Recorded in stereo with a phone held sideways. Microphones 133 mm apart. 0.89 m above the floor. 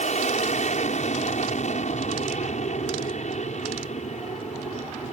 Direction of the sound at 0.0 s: 60° left (ahead or behind).